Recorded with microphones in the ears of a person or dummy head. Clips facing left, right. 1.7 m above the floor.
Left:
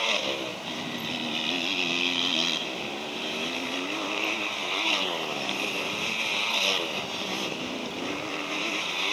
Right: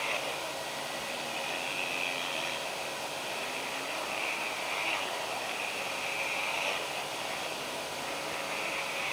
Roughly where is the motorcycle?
Left.